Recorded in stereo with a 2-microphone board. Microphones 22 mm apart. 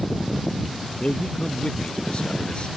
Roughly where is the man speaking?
Left.